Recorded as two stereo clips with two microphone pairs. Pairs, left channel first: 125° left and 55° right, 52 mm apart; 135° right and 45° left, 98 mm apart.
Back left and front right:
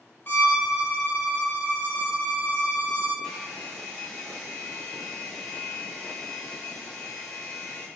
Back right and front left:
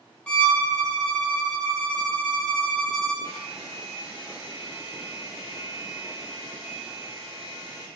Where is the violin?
155° left, 0.7 m.